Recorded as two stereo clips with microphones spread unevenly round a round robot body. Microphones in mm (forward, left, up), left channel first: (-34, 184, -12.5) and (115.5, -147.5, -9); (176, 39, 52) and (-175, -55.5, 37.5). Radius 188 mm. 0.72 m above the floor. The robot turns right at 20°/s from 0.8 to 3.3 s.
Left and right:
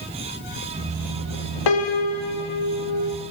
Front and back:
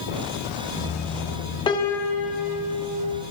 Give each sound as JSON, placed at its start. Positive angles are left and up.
{"t": 1.7, "sound": "a piano", "azimuth_deg": 95, "distance_m": 0.8}